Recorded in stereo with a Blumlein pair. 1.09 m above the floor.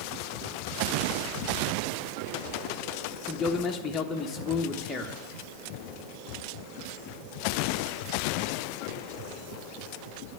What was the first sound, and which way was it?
A man speaking, 15° left.